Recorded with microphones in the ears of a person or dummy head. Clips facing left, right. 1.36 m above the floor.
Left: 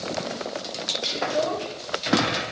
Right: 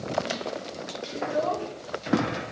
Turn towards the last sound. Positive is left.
turn(degrees=5)  # may be behind; listen again after turning